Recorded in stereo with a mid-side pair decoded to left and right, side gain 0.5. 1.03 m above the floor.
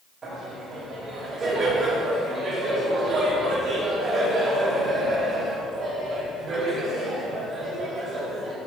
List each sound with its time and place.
0.2 s laughter: 40° right, 2.5 m